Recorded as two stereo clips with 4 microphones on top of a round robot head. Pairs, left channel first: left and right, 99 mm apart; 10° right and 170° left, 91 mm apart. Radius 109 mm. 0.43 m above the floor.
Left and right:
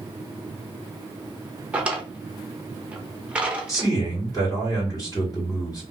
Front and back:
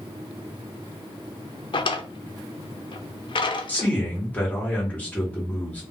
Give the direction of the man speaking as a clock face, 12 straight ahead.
10 o'clock.